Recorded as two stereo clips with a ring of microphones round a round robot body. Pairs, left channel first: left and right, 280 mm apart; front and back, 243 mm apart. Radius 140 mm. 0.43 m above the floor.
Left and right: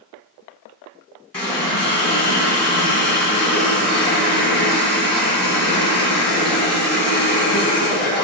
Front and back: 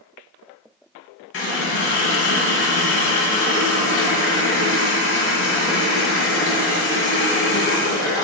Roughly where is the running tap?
Ahead left.